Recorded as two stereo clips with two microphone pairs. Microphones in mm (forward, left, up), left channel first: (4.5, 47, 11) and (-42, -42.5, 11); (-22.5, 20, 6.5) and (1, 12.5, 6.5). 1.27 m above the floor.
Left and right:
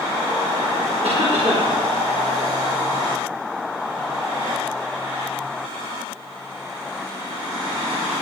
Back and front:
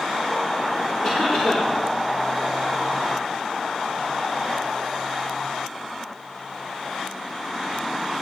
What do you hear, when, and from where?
1.0 s a cough: 115° right, 3 m